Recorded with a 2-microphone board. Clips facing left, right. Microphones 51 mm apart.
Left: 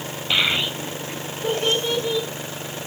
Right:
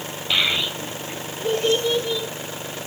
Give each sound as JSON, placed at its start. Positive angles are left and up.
{"t": 0.3, "sound": "a child speaking", "side_deg": 10, "distance_m": 1.3}